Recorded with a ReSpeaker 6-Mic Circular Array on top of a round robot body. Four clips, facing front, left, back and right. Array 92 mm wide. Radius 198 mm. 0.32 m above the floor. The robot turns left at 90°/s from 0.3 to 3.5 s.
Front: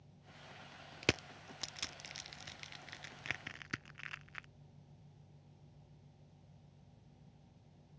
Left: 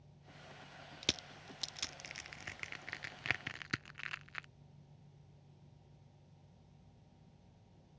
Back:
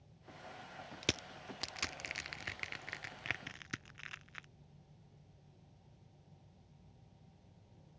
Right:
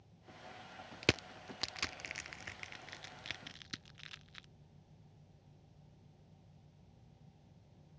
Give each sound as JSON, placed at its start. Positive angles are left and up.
{"t": 1.0, "sound": "crushing", "azimuth_deg": -55}